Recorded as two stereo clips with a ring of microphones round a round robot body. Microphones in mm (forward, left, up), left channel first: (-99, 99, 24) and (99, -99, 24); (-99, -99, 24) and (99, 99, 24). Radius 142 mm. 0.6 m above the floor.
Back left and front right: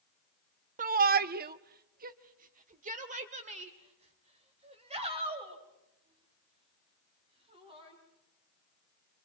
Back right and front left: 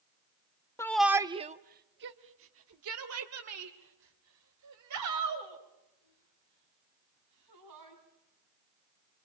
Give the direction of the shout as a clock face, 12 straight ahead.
2 o'clock.